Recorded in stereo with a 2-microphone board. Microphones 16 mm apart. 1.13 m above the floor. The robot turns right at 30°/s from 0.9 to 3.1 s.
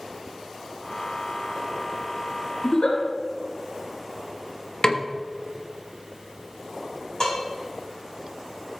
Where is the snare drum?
50° left (ahead or behind), 1.2 m.